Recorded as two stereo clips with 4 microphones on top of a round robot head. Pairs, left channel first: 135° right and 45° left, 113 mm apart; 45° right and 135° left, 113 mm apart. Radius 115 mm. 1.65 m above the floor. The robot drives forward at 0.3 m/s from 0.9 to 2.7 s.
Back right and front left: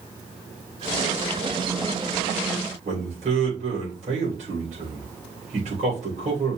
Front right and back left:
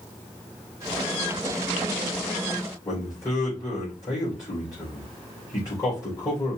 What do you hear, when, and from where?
2.9 s a man speaking: 20° left, 2.5 m